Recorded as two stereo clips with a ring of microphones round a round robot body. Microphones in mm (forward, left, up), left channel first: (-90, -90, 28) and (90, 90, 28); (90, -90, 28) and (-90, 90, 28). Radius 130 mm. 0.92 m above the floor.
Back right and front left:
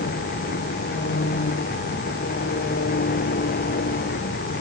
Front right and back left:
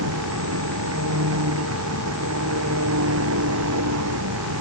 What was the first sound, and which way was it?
An engine running, 170° left.